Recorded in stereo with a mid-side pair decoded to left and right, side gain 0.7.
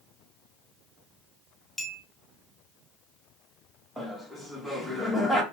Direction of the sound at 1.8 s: 5° left.